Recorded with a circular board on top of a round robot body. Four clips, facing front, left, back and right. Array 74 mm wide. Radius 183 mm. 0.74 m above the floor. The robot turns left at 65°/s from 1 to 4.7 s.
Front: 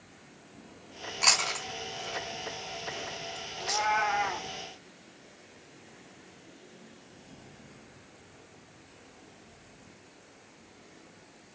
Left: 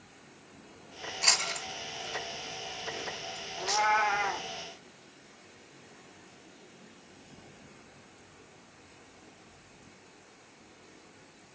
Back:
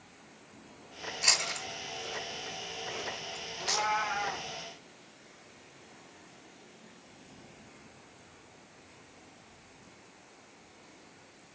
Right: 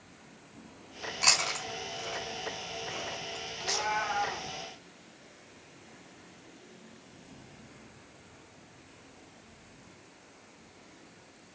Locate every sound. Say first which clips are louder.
1.2 s chewing: right 2 dB, front 5 dB; 15° right, 1.8 m; by 3.9 s 170° left, 1.8 m
3.6 s a cat meowing: left 6 dB, front 3 dB; 95° left, 0.6 m; by 4.5 s 35° left, 0.6 m